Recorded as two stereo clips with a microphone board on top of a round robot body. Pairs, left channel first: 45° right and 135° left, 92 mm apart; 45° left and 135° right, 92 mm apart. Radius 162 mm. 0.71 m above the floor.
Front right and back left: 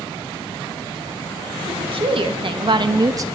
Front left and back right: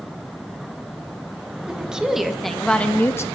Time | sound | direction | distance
1.7 | a woman speaking | 145° left | 1.5 m